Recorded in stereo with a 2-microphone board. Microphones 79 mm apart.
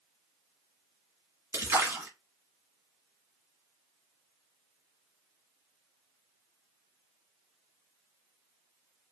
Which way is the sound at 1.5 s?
35° right (ahead or behind).